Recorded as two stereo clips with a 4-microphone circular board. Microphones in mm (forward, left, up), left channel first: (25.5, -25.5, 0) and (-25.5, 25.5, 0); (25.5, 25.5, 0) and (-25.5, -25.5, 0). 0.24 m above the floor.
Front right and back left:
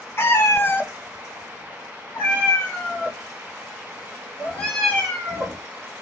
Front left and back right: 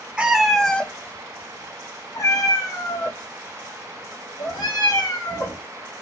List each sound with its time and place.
0.2 s a cat meowing: 70° right, 0.6 m; by 5.6 s 35° left, 3 m